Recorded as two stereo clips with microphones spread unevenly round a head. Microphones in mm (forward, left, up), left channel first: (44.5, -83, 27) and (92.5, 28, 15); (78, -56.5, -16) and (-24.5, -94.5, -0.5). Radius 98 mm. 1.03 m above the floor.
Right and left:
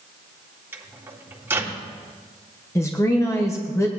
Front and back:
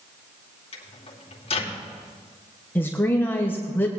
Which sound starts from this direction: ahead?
A microwave, at 0.7 s.